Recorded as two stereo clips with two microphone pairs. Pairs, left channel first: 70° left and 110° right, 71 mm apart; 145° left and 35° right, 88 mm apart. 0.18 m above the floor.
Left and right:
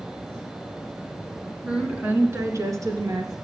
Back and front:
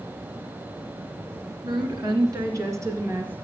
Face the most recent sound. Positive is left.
turn(degrees=-100)